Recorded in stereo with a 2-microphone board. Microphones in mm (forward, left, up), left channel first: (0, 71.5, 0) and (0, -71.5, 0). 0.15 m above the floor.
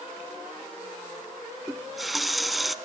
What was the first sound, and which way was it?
A running tap, centre (ahead or behind).